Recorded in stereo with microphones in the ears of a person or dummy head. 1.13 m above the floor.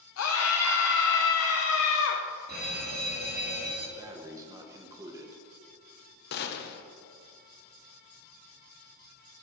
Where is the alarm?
40° right (ahead or behind), 2 m.